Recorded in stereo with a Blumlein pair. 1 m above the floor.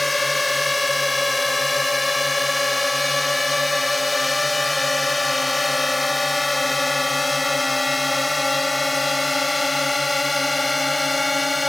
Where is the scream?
No scream in this recording.